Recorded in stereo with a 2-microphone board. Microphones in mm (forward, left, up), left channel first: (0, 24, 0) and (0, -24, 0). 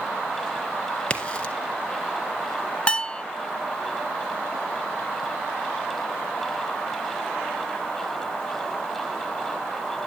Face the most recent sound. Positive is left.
turn(degrees=20)  # may be behind; listen again after turning